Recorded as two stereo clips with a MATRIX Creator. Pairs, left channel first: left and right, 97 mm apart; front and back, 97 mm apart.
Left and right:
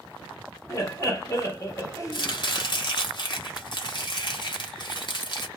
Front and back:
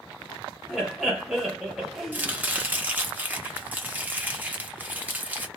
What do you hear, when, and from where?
0.7 s laughter: 95° left, 1.0 m
2.1 s chopping: 110° left, 0.7 m